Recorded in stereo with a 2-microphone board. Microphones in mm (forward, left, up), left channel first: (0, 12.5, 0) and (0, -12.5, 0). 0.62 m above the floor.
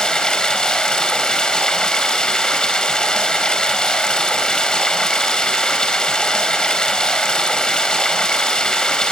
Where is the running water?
35° left (ahead or behind), 3.5 m.